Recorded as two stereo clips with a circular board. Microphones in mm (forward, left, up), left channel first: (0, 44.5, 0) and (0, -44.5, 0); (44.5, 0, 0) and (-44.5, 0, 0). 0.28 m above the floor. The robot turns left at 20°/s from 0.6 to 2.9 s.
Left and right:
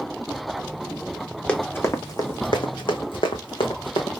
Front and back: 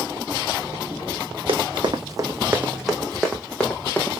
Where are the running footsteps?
165° left, 1.1 m; by 4.1 s 70° left, 1.5 m.